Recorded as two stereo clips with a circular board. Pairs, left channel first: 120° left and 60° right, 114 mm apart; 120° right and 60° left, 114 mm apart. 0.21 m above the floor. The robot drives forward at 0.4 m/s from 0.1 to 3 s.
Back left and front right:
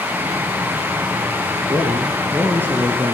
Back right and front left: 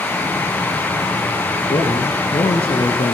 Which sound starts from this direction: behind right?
A man speaking, at 1.7 s.